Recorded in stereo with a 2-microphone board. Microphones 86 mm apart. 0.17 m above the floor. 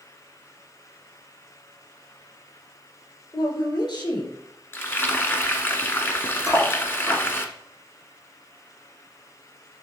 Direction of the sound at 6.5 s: 40° left (ahead or behind).